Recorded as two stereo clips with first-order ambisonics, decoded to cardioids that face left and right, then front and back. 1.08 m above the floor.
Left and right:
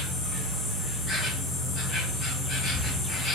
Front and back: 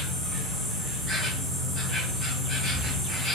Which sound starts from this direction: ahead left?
An insect, at 0.0 s.